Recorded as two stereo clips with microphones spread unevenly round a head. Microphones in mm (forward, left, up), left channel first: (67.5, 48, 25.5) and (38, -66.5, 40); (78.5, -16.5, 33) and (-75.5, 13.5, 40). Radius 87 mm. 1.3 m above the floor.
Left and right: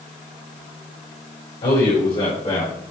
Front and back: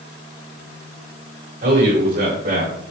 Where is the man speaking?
130° left, 5 m; by 2.8 s 135° left, 4.5 m.